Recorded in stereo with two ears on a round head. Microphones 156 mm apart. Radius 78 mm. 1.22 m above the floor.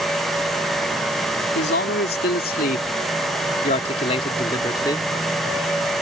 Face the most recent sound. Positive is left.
turn(degrees=15)  # may be behind; listen again after turning